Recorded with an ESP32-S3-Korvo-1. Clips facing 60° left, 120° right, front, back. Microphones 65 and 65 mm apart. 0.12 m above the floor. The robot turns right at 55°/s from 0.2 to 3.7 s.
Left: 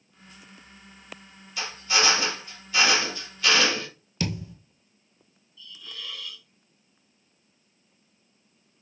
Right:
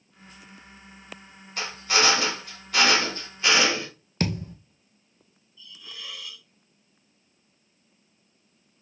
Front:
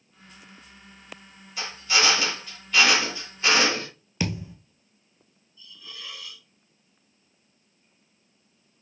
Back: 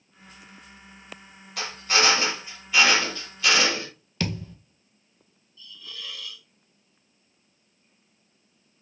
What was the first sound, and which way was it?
A drill, 160° right.